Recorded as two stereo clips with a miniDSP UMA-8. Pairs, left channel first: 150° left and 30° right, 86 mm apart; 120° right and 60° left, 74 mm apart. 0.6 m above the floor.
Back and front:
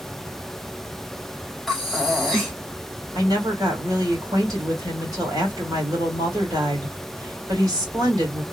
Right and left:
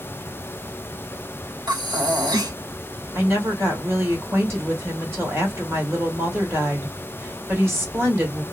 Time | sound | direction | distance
1.7 | breathing | 60° left | 1.4 m
3.1 | a woman speaking | 10° left | 1.7 m